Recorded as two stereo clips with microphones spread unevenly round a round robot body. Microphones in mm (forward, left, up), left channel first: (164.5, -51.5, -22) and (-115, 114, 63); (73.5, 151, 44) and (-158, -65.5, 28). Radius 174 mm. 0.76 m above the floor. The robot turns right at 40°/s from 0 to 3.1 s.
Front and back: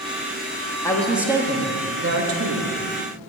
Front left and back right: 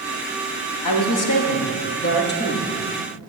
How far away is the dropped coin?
No dropped coin in this recording.